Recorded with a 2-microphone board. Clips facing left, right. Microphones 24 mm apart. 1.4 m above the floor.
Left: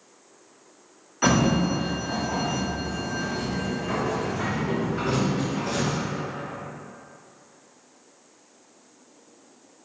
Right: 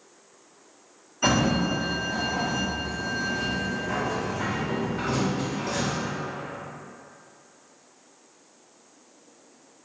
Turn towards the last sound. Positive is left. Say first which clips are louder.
# left 2 dB
turn(degrees=80)